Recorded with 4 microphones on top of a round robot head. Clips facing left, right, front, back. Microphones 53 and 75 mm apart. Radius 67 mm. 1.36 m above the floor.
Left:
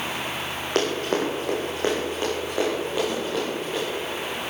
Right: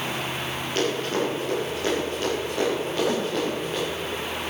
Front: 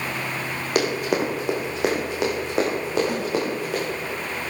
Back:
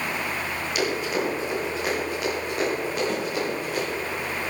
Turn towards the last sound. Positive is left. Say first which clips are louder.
# right 3 dB, front 1 dB
turn(degrees=-80)